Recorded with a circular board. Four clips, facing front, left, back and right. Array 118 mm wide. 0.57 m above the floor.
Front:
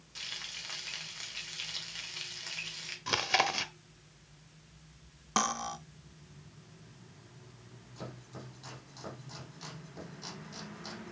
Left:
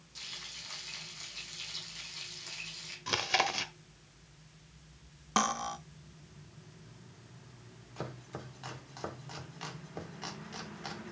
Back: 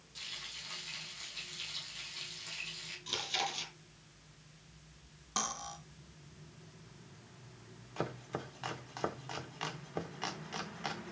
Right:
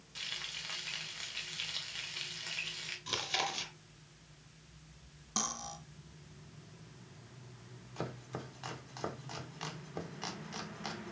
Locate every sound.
0.1 s frying: 45° right, 2.5 m
3.1 s chewing: 30° left, 0.9 m
5.4 s cutlery clinking: 55° left, 0.6 m
8.0 s chopping: 175° right, 1.4 m